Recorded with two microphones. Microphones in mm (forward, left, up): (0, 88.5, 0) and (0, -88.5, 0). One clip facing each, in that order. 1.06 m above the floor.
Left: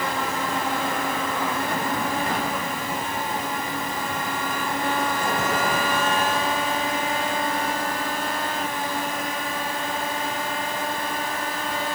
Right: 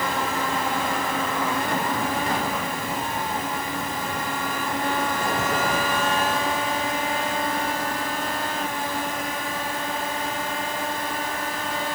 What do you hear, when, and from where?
Only background noise.